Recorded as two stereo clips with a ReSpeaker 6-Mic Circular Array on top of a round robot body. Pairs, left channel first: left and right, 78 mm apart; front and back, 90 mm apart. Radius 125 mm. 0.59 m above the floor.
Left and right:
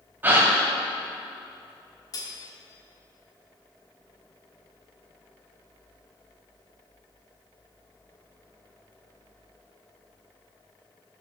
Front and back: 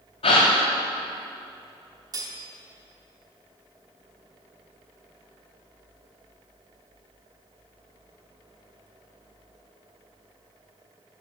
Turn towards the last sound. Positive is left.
turn(degrees=135)